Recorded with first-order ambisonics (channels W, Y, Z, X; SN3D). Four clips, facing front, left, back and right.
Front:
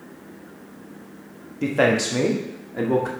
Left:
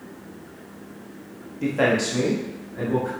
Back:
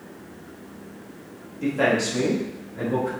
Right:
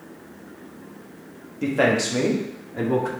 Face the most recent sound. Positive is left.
turn(degrees=-25)